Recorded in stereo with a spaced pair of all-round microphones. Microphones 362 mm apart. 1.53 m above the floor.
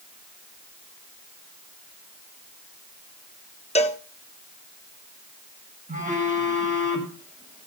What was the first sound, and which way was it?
A cowbell, 15° left (ahead or behind).